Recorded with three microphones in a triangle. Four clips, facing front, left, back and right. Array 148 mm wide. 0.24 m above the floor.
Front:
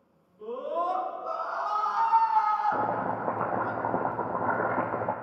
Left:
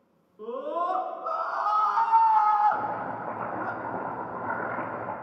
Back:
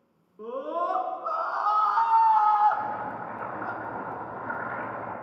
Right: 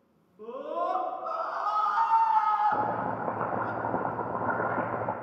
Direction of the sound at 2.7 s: 30° right.